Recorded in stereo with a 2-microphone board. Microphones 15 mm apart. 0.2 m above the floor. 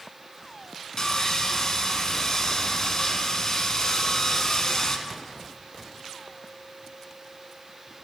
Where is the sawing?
40° left (ahead or behind), 0.7 m.